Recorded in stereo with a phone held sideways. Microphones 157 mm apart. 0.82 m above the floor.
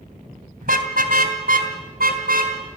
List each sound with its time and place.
0.6 s a car horn: 65° right (ahead or behind), 2 m; by 2.5 s 70° right (ahead or behind), 3.5 m